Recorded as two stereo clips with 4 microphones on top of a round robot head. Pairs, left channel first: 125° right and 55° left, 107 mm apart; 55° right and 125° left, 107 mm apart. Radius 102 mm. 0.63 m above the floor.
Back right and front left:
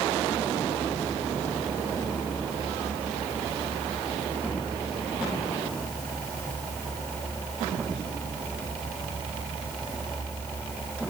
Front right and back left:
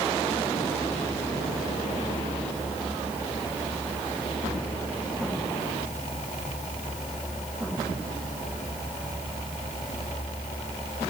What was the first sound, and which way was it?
Only background noise.